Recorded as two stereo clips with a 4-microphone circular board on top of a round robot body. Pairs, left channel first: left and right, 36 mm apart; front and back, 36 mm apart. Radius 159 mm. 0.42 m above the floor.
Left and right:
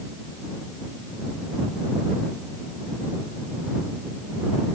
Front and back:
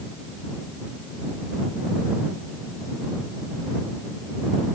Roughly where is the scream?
No scream in this recording.